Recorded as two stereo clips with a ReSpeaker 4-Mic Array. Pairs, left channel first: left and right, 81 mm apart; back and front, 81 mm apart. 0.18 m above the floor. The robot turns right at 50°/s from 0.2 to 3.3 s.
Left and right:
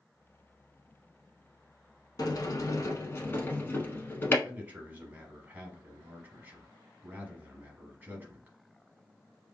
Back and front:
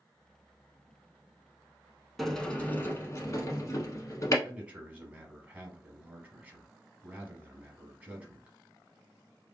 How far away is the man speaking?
About 1.1 m.